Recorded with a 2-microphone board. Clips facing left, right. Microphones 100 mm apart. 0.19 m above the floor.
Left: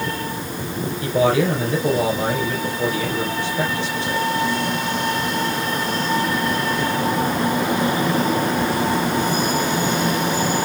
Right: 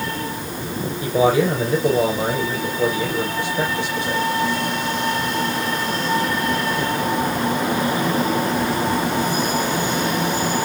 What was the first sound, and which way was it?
A man speaking, 15° right (ahead or behind).